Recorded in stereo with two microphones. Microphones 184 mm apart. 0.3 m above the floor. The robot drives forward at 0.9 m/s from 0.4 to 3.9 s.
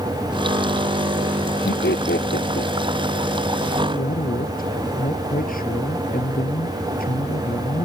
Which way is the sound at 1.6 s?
65° left (ahead or behind).